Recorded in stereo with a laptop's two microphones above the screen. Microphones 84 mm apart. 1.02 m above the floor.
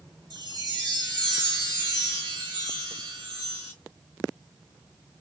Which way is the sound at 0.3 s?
55° right (ahead or behind).